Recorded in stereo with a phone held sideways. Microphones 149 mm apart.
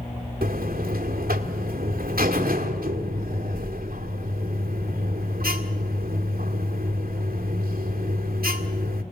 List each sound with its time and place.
0.4 s a buzzer: 80° right, 1.7 m